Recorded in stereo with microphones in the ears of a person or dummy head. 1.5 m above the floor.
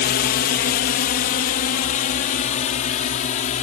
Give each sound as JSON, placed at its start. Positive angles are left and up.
{"t": 0.0, "sound": "a drone", "side_deg": 50}